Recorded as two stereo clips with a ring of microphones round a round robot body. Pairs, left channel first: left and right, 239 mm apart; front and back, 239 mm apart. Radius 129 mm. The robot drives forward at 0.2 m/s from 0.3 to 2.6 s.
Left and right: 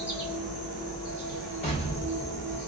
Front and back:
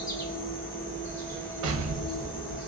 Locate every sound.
0.0 s an insect: 65° left, 1.7 m; by 2.7 s 100° left, 1.7 m
1.6 s an explosion: 155° left, 0.5 m; by 2.6 s 165° left, 0.7 m